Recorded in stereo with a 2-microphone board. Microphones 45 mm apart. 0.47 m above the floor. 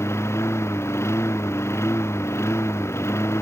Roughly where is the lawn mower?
Left.